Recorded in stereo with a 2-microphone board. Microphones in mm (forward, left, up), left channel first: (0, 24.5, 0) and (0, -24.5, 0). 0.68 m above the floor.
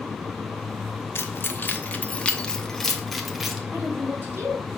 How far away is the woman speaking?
About 5 m.